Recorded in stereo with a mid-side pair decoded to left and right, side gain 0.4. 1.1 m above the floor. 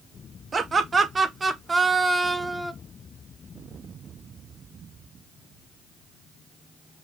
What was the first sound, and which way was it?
Laughter, 40° right.